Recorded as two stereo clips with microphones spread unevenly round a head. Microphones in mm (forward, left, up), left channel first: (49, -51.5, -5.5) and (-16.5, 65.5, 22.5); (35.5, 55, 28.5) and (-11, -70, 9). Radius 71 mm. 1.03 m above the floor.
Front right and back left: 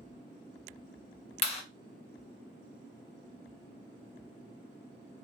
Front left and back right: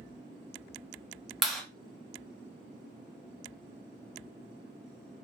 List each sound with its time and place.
1.4 s a clap: 25° right, 1.0 m